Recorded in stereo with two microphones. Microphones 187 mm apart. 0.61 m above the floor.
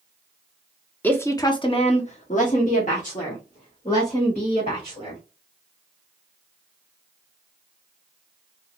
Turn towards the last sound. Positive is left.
turn(degrees=40)  # may be behind; listen again after turning